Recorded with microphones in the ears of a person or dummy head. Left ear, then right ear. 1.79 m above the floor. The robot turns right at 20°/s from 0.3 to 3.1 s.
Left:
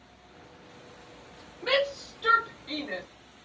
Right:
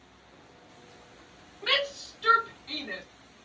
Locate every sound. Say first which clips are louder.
1.6 s a shout: left 1 dB; 25° right (ahead or behind), 1.6 m; by 3.0 s 5° left (ahead or behind), 1.6 m